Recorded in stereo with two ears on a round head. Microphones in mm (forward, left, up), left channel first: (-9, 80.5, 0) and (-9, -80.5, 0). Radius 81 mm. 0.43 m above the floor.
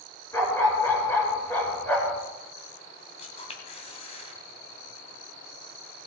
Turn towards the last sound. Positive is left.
turn(degrees=35)  # may be behind; listen again after turning